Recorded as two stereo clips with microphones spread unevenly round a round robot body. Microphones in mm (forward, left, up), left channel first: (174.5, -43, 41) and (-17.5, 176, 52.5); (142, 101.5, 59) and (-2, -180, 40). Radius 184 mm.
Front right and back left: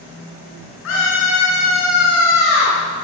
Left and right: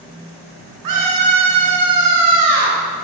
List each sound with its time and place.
0.8 s a scream: 105° right, 9 m; by 2.8 s 100° right, 10.5 m